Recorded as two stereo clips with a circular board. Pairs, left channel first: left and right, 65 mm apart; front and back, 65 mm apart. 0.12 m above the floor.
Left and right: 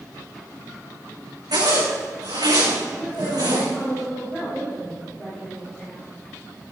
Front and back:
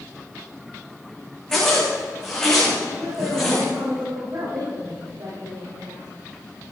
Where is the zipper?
85° right, 6 m.